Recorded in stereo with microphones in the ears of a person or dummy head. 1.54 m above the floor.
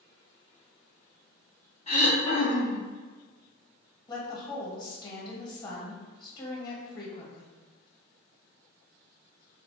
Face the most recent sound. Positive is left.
turn(degrees=30)  # may be behind; listen again after turning